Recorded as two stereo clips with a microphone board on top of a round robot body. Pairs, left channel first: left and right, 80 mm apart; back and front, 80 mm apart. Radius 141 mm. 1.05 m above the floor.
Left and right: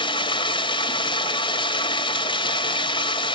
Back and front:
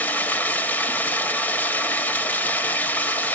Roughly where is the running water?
Left.